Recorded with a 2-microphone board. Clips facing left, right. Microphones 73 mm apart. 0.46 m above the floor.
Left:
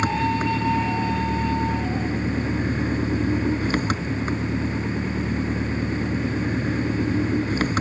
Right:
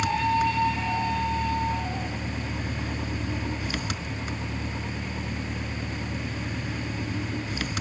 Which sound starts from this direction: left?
An engine running, at 0.0 s.